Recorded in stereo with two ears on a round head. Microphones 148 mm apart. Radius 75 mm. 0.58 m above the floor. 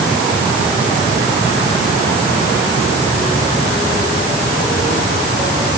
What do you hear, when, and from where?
Only background noise.